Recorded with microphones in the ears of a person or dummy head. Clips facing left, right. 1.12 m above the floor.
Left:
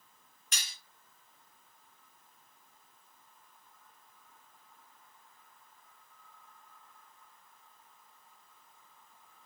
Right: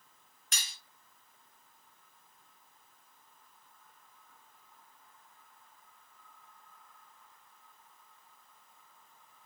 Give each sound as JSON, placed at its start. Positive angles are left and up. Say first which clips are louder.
{"t": 0.5, "sound": "cutlery clinking", "louder": "even", "side_deg": -40, "distance_m": 0.7}